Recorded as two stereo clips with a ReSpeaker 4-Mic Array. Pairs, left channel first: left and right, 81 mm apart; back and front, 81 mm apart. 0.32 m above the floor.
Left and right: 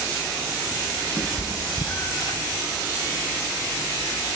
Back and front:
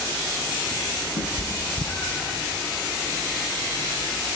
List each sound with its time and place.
1.2 s a cat meowing: 175° left, 1.7 m; by 2.4 s 115° left, 1.5 m